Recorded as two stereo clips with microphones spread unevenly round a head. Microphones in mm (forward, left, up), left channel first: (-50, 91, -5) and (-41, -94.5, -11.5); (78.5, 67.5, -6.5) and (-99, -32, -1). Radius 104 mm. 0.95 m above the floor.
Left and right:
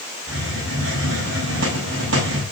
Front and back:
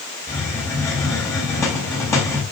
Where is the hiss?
50° right, 6.5 m.